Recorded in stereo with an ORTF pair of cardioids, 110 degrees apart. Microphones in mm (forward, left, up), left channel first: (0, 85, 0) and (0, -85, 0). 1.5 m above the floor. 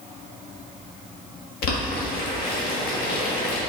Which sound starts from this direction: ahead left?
Boiling, at 1.6 s.